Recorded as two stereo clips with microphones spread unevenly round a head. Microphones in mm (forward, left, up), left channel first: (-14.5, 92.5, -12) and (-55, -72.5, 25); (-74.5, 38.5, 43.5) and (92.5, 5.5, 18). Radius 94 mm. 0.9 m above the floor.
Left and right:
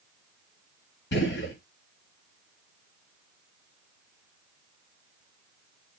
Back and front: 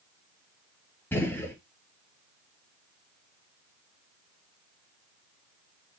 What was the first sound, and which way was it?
A gunshot, 90° left.